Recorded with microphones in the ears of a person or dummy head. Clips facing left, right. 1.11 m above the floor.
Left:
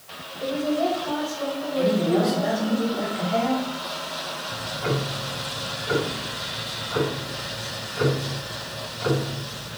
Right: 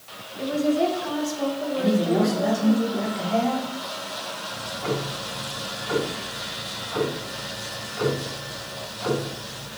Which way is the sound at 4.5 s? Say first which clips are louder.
Left 1 dB; 20° left (ahead or behind).